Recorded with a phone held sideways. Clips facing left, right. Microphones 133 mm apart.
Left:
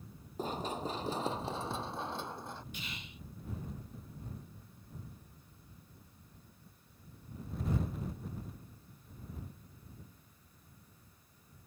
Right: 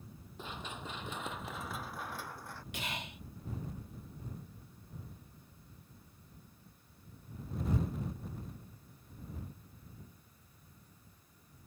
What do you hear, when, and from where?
0.4 s running footsteps: 40° left (ahead or behind); by 2.6 s 20° left (ahead or behind)
2.7 s whispering: 85° right